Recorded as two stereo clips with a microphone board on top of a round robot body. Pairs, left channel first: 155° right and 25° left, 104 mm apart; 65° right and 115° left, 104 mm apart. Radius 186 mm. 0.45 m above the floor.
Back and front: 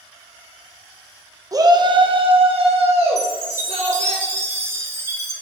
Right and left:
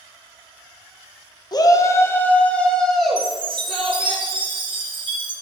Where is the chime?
80° left, 2.0 m.